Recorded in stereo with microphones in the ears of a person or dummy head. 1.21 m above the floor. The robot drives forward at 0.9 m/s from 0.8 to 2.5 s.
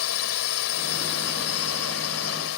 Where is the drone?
85° left; by 2.6 s 80° left.